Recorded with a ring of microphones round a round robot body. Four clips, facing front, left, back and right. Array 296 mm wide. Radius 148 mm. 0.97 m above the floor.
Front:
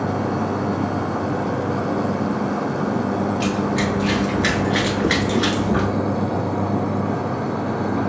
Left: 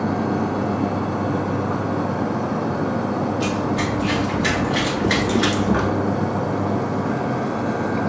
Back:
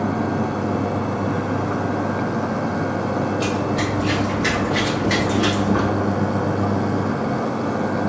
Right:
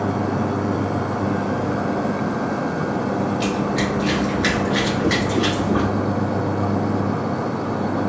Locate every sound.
3.4 s running footsteps: 70° right, 1.4 m; by 5.9 s 80° left, 1.1 m